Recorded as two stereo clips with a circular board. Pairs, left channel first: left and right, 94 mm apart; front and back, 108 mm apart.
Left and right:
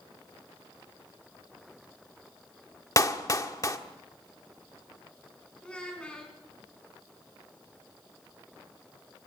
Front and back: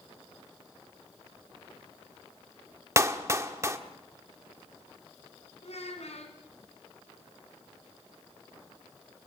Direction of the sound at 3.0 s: 130° left.